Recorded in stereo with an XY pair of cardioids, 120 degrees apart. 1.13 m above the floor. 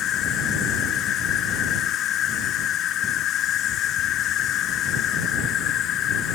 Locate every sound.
0.0 s an insect: 65° left